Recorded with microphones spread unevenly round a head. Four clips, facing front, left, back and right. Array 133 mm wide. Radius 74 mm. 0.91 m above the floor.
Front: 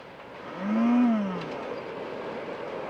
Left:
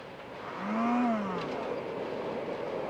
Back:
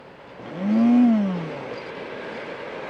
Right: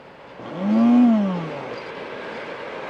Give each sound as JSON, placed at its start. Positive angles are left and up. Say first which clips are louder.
{"t": 0.4, "sound": "a blender", "louder": "right 13 dB, back 6 dB", "azimuth_deg": -130}